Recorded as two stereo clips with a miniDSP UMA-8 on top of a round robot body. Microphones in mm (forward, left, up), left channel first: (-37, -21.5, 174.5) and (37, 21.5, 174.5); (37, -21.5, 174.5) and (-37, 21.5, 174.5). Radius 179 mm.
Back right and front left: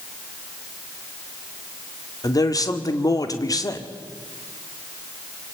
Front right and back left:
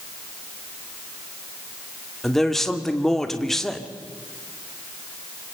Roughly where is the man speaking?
Behind right.